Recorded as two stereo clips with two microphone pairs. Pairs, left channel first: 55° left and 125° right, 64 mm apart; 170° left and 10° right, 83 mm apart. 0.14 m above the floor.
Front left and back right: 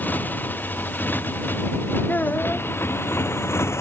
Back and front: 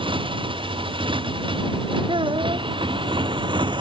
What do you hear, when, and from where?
0.0 s a motorcycle: 10° right; by 3.8 s 10° left
2.1 s a child speaking: 10° right